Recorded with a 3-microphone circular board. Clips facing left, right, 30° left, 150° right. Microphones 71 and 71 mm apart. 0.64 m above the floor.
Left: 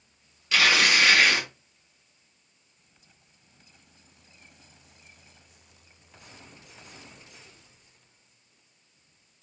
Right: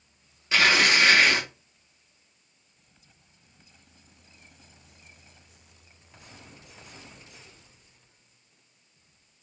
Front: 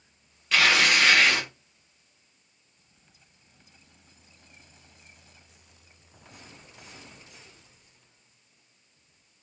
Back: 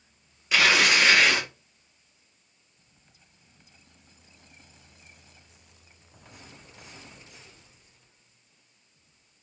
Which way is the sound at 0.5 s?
80° right.